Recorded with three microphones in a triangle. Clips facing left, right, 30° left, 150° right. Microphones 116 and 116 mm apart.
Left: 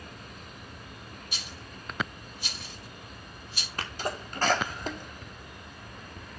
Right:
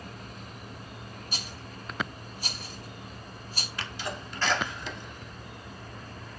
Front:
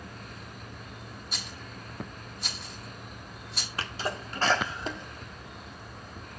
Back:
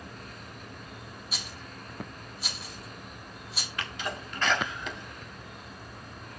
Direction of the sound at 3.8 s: 70° left.